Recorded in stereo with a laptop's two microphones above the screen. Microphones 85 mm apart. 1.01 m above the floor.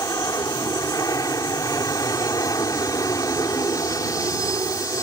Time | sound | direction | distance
0.0 | an aircraft | 40° left (ahead or behind) | ?